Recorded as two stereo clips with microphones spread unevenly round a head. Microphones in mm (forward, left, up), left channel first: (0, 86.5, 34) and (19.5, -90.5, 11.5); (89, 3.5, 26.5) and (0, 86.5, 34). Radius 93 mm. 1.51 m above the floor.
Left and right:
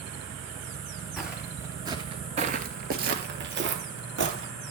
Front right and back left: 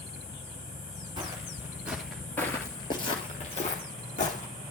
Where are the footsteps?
Straight behind, 1.9 m; by 4.5 s 70° right, 2.5 m.